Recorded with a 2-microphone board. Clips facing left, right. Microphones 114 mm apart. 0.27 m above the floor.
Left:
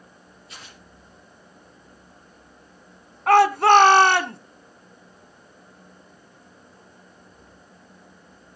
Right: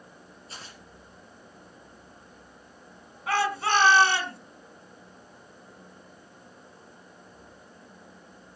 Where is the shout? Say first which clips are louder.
Left 11 dB; 60° left (ahead or behind), 2 m.